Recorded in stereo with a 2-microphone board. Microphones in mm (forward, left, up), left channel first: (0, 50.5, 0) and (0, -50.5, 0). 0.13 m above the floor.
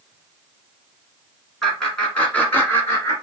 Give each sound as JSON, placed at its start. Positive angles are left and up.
{"t": 1.6, "sound": "laughter", "side_deg": 0, "distance_m": 1.6}